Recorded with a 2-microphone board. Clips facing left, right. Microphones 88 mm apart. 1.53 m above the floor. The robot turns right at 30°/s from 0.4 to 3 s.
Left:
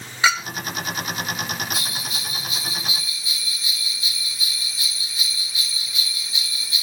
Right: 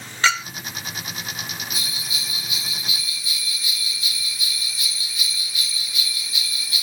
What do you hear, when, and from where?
0.2 s a clink: 10° left (ahead or behind), 1.0 m
1.7 s a bell: 115° left, 1.7 m; by 6.8 s 155° left, 1.7 m